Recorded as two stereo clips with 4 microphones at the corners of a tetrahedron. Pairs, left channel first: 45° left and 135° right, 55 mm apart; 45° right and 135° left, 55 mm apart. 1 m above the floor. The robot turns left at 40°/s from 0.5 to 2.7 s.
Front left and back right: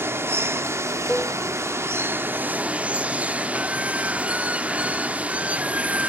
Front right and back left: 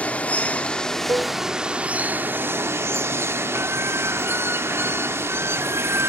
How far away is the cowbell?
About 0.6 m.